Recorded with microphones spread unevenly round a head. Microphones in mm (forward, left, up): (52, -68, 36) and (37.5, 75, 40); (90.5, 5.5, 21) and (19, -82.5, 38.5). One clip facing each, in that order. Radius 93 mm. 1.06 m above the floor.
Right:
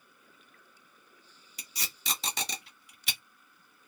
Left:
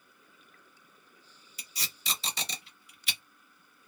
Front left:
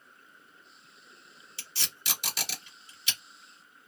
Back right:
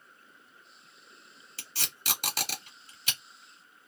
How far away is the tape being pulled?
About 1.3 m.